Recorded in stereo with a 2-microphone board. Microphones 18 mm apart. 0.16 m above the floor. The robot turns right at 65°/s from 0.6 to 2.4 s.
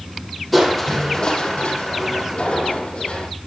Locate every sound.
0.5 s crushing: 10° left, 5.5 m; by 3.3 s 125° left, 5.5 m